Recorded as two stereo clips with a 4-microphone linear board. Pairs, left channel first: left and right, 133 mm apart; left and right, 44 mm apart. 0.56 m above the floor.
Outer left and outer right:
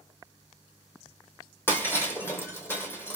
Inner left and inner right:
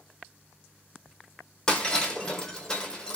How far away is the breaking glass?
About 1.1 m.